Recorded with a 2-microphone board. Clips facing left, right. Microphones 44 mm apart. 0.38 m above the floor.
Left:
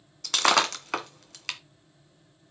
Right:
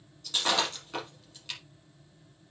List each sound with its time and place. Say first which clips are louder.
0.2 s breaking glass: left 6 dB; 80° left, 1.6 m